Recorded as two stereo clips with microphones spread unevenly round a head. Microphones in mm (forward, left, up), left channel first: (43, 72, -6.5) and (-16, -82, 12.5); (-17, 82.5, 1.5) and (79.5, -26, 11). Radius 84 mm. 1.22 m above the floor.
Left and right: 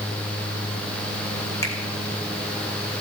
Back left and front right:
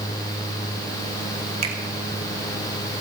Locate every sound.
1.6 s a finger snap: 5° right, 3 m